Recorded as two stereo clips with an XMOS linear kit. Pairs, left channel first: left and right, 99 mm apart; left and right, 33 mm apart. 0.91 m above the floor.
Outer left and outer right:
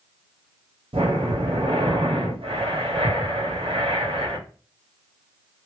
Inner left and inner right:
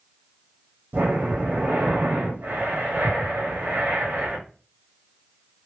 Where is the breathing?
65° right (ahead or behind), 1.3 m.